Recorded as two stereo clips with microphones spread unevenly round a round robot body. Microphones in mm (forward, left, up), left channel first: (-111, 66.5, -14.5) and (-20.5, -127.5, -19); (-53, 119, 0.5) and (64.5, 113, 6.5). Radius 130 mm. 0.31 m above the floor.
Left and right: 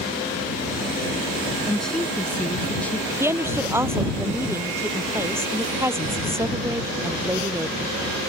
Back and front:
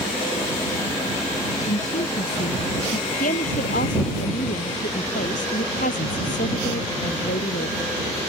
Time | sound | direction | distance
1.6 | a woman speaking | 160° right | ?
3.2 | a woman speaking | 145° right | ?